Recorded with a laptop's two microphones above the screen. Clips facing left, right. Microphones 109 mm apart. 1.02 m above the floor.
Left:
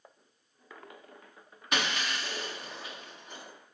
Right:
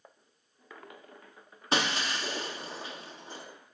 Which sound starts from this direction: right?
Breaking glass, at 1.7 s.